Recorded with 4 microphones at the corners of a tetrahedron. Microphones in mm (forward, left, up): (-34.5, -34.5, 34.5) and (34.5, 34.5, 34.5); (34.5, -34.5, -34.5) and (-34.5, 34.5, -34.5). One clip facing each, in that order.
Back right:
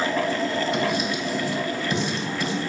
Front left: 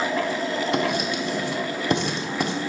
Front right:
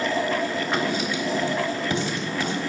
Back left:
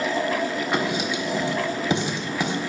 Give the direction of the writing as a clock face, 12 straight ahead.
10 o'clock.